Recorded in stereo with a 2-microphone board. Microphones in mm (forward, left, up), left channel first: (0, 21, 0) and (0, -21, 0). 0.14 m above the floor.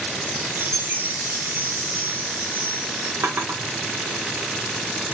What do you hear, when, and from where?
0.2 s a chime: 55° right (ahead or behind), 4 m
3.2 s a drawer: 70° right (ahead or behind), 3.5 m